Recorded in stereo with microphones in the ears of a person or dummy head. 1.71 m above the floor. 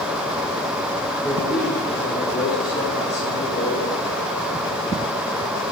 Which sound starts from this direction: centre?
A man speaking, at 1.2 s.